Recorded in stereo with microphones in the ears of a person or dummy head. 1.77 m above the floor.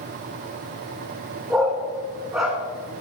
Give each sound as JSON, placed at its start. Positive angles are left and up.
{"t": 1.5, "sound": "a dog barking", "side_deg": -5, "distance_m": 1.1}